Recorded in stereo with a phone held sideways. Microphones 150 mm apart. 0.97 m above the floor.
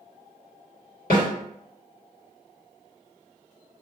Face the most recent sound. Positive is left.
turn(degrees=75)  # may be behind; listen again after turning